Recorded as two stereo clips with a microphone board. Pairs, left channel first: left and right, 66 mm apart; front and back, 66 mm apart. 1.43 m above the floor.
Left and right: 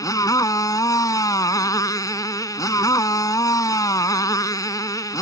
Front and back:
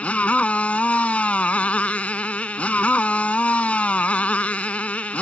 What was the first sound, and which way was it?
A motorcycle, 70° left.